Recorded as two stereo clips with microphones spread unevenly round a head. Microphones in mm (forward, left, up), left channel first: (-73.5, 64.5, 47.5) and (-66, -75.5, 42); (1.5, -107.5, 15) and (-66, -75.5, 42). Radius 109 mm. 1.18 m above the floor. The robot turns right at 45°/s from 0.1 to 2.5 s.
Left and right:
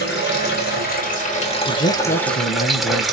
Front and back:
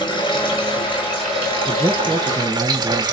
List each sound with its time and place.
0.0 s running water: 75° left, 3 m; by 3.1 s 175° right, 3 m
1.7 s a man speaking: 50° left, 1.0 m; by 3.0 s 90° left, 1.0 m